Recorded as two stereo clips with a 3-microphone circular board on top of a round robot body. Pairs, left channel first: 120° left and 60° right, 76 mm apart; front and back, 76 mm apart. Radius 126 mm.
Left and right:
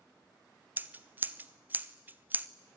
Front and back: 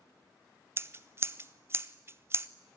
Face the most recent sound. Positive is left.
turn(degrees=-125)